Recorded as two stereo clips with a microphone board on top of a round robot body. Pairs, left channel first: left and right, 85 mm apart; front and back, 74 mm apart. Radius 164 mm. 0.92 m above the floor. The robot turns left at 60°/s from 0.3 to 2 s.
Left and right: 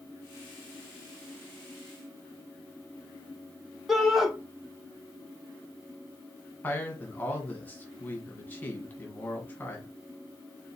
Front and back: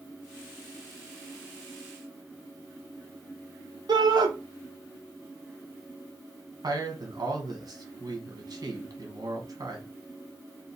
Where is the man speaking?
160° left, 1.3 m.